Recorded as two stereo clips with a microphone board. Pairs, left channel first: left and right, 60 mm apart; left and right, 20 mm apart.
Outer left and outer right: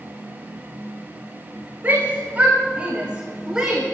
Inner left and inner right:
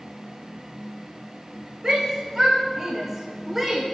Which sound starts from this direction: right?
A shout, at 1.8 s.